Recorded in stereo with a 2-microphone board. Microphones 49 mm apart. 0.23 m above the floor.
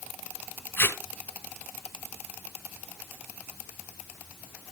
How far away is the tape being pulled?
About 1.0 m.